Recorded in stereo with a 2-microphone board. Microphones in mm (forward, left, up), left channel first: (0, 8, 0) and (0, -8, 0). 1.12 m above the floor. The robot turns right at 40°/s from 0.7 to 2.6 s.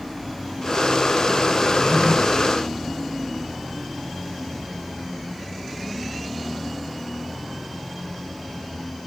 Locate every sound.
1.6 s a drawer: 40° right (ahead or behind), 1.7 m; by 2.1 s 20° right (ahead or behind), 1.7 m